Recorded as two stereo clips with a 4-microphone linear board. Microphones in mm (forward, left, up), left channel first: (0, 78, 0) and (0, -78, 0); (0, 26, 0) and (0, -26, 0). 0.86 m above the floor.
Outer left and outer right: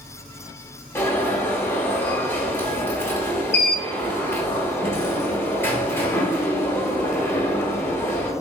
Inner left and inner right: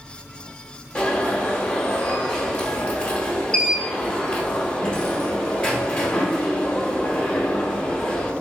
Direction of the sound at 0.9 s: 15° left (ahead or behind).